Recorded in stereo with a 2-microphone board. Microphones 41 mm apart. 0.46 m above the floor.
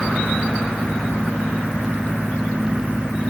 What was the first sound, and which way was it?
Only background noise.